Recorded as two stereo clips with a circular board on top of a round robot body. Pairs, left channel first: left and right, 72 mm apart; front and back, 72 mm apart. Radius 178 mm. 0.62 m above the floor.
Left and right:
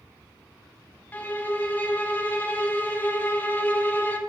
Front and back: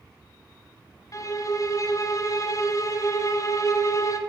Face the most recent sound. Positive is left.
turn(degrees=30)